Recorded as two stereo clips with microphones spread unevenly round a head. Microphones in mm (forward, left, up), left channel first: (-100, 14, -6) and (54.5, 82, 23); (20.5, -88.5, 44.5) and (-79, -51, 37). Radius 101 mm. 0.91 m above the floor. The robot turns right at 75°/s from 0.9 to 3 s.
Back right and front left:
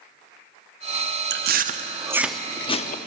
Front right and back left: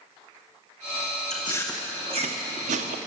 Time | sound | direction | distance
1.3 | chewing | 35° left | 0.6 m